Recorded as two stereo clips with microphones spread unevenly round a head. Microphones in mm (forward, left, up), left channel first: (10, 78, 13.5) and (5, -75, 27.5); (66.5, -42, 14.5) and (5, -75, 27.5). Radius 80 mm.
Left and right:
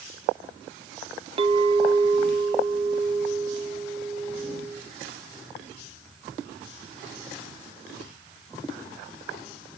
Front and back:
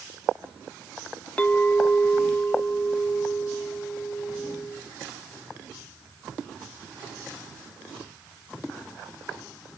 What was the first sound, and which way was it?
A clink, 45° right.